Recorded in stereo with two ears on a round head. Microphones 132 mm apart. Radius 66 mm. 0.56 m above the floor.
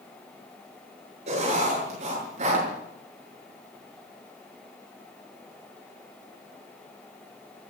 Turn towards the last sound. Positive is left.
turn(degrees=-50)  # may be behind; listen again after turning